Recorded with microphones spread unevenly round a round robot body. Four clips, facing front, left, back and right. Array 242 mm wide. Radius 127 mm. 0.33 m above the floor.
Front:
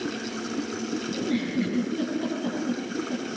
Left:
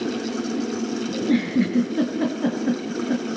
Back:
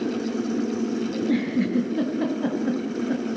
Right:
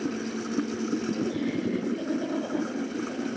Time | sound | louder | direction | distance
1.1 | a giggle | left 8 dB, back 3 dB | 120° left | 6 m